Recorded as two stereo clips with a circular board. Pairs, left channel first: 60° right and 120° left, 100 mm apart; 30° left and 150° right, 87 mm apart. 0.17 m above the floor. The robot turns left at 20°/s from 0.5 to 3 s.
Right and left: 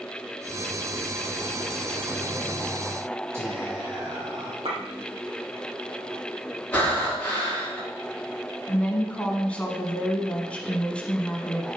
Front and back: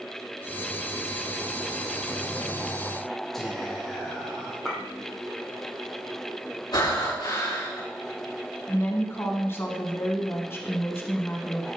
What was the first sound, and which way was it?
Whispering, 110° left.